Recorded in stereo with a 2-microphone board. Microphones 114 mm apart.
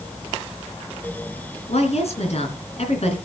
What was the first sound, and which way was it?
A woman speaking, 65° left (ahead or behind).